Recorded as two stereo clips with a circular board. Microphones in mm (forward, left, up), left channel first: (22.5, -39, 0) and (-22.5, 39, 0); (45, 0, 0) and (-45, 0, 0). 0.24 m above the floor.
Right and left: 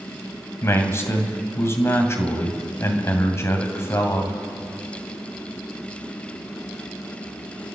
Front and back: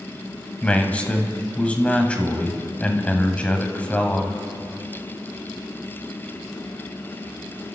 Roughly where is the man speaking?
Ahead right.